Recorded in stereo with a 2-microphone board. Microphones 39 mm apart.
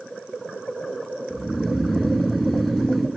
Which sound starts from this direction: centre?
Snoring, at 1.3 s.